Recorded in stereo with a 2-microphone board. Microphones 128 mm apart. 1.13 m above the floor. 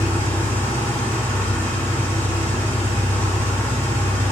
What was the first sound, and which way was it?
An engine running, 15° left (ahead or behind).